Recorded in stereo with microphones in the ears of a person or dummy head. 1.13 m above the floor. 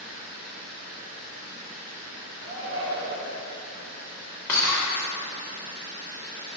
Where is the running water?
75° right (ahead or behind), 0.8 m.